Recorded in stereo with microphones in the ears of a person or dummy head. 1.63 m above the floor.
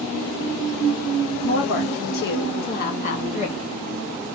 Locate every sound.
1.4 s a woman speaking: 60° left (ahead or behind), 2 m; by 3.6 s 35° left (ahead or behind), 1.2 m